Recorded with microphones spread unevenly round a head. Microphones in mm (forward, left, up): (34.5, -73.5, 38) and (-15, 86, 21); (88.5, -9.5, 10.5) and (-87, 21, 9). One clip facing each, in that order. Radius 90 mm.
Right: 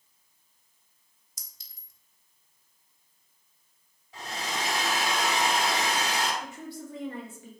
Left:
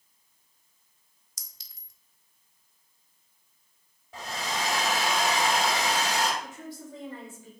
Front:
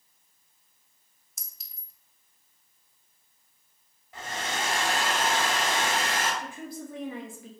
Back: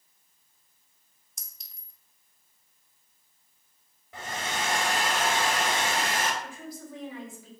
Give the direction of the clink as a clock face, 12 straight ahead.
9 o'clock.